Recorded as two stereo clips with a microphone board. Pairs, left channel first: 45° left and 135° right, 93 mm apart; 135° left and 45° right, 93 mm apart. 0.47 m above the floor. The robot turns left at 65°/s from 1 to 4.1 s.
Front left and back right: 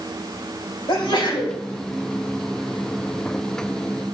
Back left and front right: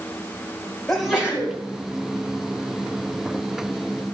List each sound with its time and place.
0.9 s a sneeze: 50° left, 3 m; by 1.6 s 10° left, 3 m